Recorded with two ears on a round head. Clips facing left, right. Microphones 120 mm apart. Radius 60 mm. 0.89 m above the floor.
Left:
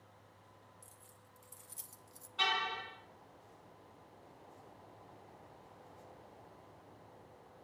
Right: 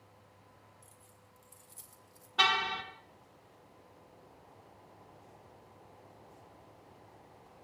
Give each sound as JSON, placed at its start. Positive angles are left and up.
{"t": 0.8, "sound": "keys jangling", "side_deg": 15, "distance_m": 3.0}
{"t": 2.4, "sound": "a car horn", "side_deg": -75, "distance_m": 3.5}